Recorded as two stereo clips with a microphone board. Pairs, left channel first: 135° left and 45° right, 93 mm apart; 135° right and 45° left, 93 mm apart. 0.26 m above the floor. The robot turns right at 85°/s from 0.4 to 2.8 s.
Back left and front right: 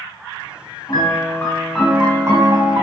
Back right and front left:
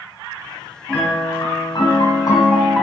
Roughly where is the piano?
Behind left.